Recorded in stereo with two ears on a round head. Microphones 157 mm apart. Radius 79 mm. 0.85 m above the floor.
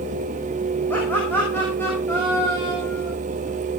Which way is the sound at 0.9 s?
10° left (ahead or behind).